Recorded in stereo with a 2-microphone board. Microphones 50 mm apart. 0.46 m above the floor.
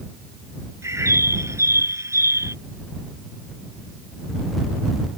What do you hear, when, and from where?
0.8 s a bird: 80° right